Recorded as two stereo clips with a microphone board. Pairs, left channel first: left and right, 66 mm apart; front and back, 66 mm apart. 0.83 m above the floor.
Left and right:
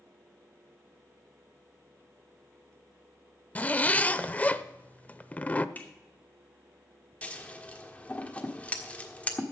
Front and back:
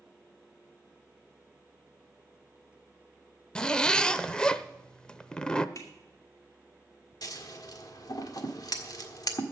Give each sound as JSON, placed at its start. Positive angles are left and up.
{"t": 3.5, "sound": "a zipper", "azimuth_deg": 60, "distance_m": 0.5}
{"t": 5.8, "sound": "a finger snap", "azimuth_deg": 30, "distance_m": 2.5}
{"t": 7.2, "sound": "scissors", "azimuth_deg": 20, "distance_m": 1.5}